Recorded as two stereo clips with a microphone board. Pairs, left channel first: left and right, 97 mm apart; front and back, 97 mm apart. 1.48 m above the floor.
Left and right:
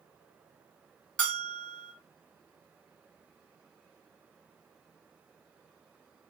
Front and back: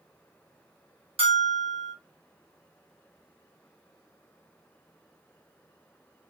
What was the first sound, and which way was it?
A bell, 170° left.